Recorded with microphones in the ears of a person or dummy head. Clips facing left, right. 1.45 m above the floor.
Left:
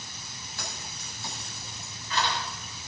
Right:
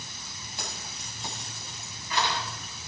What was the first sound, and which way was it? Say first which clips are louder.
Keys jangling: right 1 dB; 20° right (ahead or behind).